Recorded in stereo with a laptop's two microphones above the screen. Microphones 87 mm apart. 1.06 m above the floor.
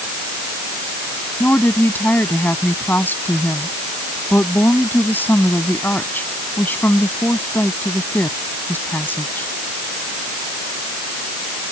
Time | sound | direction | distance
1.4 | a woman speaking | 20° left (ahead or behind) | ?